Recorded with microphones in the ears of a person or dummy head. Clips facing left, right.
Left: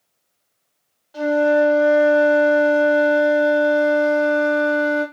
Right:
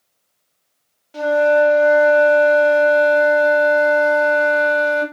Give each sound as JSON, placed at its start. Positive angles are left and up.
{"t": 1.1, "sound": "a flute", "side_deg": -30, "distance_m": 1.3}